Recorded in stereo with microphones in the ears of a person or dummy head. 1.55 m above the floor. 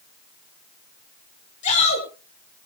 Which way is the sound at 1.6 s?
40° left (ahead or behind).